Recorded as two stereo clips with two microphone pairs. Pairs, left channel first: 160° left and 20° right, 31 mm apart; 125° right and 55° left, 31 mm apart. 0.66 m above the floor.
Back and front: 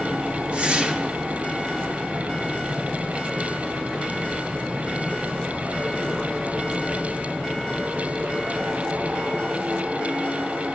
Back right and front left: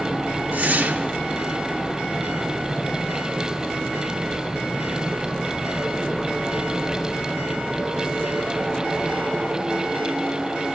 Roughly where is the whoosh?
Ahead left.